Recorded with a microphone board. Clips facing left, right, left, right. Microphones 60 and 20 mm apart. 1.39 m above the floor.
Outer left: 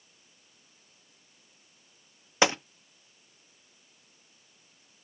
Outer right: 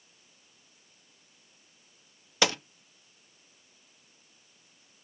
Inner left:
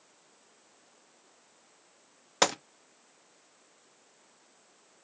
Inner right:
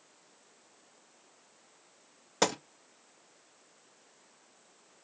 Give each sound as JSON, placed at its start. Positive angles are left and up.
{"t": 2.4, "sound": "a gunshot", "side_deg": 25, "distance_m": 0.6}